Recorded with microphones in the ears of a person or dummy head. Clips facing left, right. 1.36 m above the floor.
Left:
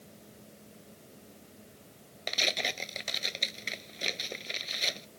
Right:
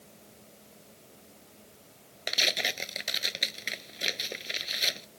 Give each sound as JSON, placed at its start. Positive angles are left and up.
{"t": 0.0, "sound": "a fan", "side_deg": 15}
{"t": 2.3, "sound": "tearing paper", "side_deg": -5}